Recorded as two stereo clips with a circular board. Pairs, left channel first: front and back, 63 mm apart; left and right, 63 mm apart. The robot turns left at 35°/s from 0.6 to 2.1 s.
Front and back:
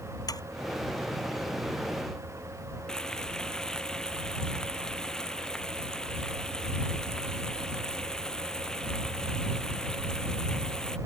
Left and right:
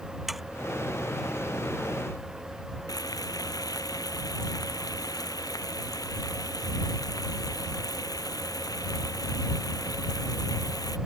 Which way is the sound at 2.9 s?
80° left.